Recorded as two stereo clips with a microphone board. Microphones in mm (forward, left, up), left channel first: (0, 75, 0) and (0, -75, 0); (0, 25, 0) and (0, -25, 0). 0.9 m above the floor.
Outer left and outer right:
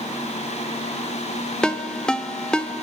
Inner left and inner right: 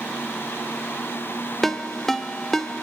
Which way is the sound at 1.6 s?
5° left (ahead or behind).